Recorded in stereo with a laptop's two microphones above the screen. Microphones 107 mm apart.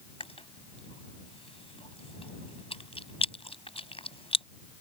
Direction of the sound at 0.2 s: 60° left (ahead or behind).